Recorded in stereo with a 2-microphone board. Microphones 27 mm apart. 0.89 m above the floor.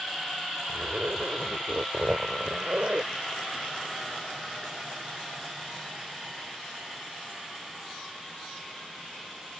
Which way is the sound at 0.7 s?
60° right (ahead or behind).